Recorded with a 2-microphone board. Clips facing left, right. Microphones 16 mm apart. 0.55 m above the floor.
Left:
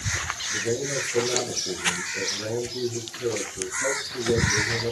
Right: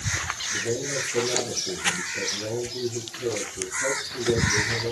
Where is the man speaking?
45° left (ahead or behind), 7 m.